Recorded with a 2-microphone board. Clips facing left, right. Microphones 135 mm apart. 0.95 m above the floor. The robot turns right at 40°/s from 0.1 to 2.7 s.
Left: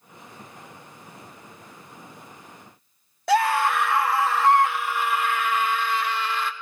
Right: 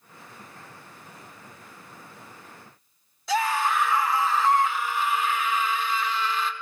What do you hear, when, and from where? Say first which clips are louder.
3.3 s a scream: left 4 dB; 60° left (ahead or behind), 1.9 m